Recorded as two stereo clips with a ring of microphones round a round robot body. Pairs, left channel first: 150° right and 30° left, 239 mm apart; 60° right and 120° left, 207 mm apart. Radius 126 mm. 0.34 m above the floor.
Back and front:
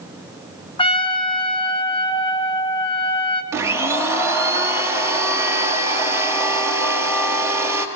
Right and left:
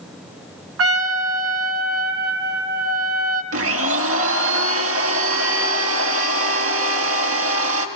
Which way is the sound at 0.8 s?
140° left.